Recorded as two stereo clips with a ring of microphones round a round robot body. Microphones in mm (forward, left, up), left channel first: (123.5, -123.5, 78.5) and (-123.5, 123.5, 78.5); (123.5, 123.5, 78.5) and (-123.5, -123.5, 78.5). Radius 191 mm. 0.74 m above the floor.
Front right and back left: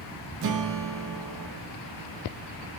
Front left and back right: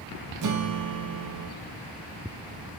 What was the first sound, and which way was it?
A guitar, 175° right.